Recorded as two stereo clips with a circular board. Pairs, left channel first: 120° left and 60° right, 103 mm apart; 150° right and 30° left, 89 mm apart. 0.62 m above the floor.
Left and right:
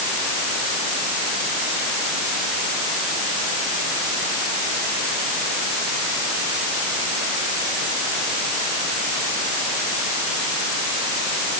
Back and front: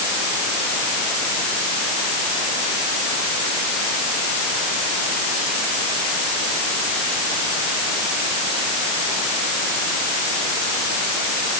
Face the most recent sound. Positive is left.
No sound to turn to.